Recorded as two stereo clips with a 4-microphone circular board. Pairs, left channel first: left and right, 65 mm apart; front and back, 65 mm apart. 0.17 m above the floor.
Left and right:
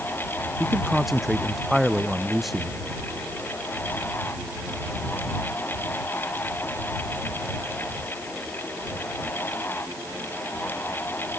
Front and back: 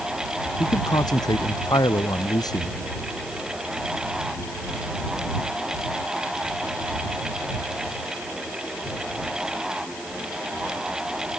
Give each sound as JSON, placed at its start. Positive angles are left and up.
{"t": 0.6, "sound": "a man speaking", "azimuth_deg": 0}